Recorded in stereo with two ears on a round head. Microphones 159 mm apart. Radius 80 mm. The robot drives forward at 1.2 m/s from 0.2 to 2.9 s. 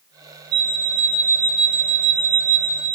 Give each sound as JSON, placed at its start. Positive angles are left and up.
{"t": 0.5, "sound": "an alarm clock", "side_deg": -65, "distance_m": 2.5}